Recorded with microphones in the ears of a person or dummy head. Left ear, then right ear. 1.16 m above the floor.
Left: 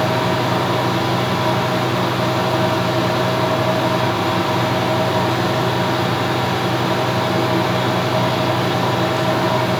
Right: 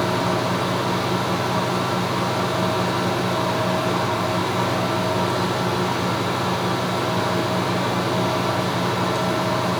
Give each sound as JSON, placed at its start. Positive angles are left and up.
{"t": 0.0, "sound": "a fan", "side_deg": -45, "distance_m": 5.0}